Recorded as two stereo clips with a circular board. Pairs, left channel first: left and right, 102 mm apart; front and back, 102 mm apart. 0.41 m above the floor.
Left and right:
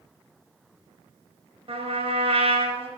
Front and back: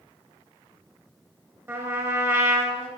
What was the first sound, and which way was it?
A trumpet, 115° right.